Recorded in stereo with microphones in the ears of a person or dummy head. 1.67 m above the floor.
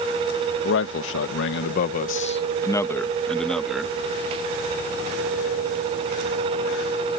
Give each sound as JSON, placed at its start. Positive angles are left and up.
{"t": 0.6, "sound": "a man speaking", "side_deg": 65}